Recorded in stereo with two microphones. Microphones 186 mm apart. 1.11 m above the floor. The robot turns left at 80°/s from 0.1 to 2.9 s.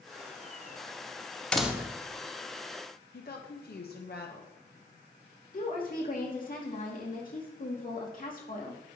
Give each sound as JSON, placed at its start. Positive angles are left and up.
{"t": 1.5, "sound": "a door slam", "azimuth_deg": 5, "distance_m": 0.8}
{"t": 3.1, "sound": "a woman speaking", "side_deg": 60, "distance_m": 1.1}
{"t": 5.5, "sound": "a woman speaking", "side_deg": 50, "distance_m": 2.5}